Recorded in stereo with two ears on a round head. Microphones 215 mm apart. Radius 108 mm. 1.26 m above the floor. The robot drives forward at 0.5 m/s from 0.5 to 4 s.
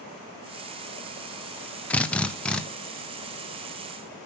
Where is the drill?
5° left (ahead or behind), 1.0 m.